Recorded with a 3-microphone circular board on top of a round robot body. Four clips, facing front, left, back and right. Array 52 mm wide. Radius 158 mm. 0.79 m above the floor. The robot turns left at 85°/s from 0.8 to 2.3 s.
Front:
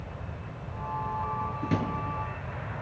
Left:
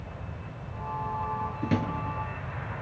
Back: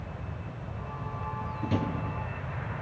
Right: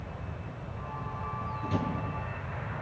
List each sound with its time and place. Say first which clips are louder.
1.6 s a drawer: left 3 dB, back 1 dB; 75° left, 5.5 m; by 1.9 s 50° left, 5.5 m